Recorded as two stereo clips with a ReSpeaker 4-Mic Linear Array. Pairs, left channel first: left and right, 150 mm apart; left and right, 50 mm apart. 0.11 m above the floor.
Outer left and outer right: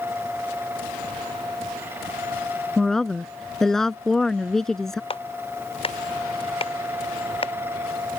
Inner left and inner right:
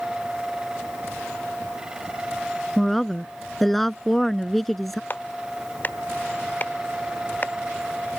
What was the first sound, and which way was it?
A woman speaking, 5° left (ahead or behind).